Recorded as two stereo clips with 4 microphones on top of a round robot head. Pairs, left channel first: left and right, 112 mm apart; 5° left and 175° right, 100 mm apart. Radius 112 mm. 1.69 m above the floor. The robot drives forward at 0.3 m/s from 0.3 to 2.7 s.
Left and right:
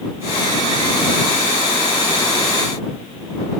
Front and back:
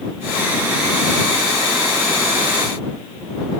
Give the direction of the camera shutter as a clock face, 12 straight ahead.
I don't hear a camera shutter.